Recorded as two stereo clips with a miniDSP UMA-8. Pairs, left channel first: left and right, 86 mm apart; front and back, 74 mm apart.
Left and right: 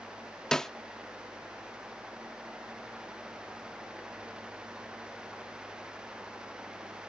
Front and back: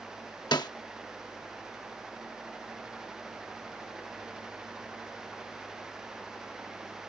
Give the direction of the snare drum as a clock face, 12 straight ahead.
12 o'clock.